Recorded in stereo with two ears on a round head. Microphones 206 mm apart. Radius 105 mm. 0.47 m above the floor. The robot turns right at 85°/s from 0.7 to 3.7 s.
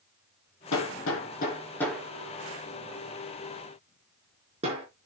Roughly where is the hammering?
Left.